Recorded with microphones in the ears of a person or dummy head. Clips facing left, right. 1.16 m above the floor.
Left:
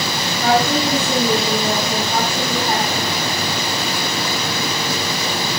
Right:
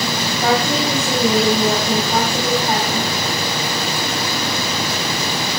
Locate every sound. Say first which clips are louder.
0.4 s a woman speaking: left 2 dB; 20° right (ahead or behind), 7 m